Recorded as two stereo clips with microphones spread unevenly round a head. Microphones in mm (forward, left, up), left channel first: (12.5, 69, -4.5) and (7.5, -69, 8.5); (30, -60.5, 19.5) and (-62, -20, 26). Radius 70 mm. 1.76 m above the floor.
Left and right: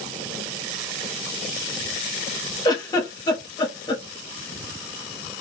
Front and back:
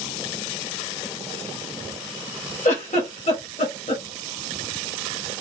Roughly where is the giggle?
Ahead left.